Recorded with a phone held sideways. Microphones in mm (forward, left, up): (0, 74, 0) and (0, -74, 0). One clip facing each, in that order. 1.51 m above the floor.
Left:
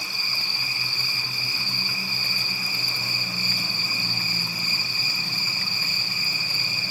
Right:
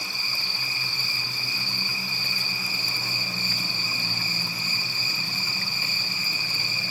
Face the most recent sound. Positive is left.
turn(degrees=10)  # may be behind; listen again after turning